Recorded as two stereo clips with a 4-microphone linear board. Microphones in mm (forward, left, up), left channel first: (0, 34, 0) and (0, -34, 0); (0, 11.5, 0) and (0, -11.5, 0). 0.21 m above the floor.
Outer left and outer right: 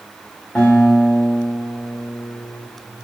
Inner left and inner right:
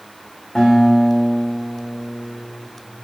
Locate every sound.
0.6 s a guitar: 5° left (ahead or behind), 7 m